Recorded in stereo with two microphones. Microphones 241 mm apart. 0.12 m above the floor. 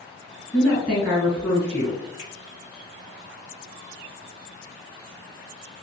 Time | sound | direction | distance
0.5 | a woman speaking | 5° left (ahead or behind) | 1.7 m
2.2 | a finger snap | centre (ahead or behind) | 1.8 m